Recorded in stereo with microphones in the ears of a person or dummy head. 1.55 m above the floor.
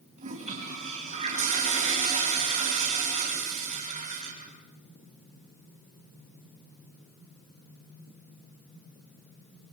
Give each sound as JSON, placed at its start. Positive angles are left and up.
{"t": 0.2, "sound": "a toilet flushing", "side_deg": -40, "distance_m": 4.0}